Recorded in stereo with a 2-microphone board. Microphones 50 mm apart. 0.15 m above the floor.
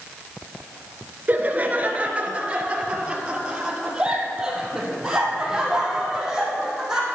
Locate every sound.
1.3 s laughter: 35° right (ahead or behind), 1.6 m; by 7.1 s 10° right (ahead or behind), 5.5 m